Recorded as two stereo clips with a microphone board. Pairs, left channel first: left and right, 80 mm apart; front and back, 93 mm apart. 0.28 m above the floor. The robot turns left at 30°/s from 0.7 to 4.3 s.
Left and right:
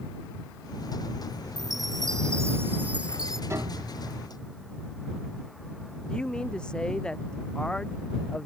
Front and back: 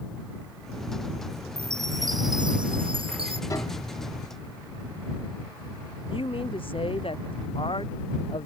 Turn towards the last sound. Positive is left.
turn(degrees=10)